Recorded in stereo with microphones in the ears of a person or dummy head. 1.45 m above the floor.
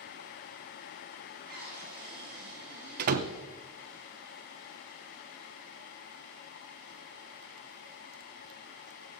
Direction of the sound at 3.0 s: 55° right (ahead or behind).